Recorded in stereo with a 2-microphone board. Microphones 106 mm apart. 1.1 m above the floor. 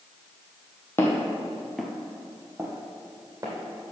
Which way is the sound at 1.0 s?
25° left (ahead or behind).